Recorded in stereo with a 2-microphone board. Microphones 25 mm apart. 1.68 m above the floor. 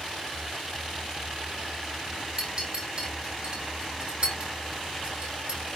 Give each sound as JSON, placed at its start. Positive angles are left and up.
{"t": 2.4, "sound": "a clink", "side_deg": -45, "distance_m": 1.4}